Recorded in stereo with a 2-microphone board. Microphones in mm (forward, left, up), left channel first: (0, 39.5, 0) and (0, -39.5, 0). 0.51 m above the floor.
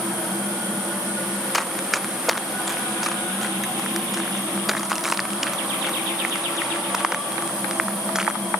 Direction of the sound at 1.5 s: Centre (ahead or behind).